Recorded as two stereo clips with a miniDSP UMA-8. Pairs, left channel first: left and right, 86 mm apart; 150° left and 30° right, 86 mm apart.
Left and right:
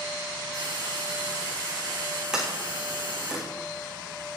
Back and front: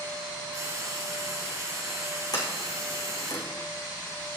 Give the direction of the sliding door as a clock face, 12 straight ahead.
6 o'clock.